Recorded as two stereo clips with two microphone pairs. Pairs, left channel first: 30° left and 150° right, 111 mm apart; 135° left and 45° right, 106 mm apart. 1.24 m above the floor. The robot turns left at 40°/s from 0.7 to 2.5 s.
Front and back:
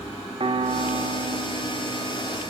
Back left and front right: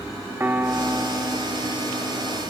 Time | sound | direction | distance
0.4 | a piano | 115° right | 0.7 m